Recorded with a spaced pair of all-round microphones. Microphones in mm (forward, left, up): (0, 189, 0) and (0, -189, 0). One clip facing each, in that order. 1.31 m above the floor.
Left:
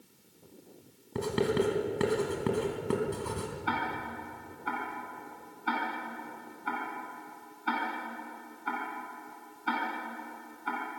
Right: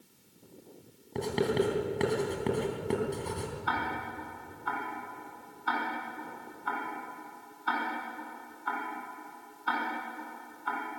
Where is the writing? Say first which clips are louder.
Even; 15° left (ahead or behind), 3.5 m.